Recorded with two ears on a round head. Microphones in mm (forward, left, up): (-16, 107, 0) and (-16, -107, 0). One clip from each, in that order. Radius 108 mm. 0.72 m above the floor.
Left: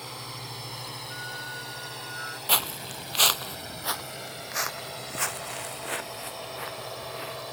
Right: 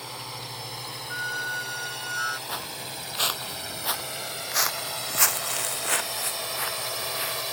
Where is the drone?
10° right (ahead or behind); by 7.5 s 60° right (ahead or behind).